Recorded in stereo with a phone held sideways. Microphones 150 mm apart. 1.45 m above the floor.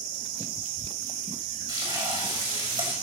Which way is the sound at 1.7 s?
25° right (ahead or behind).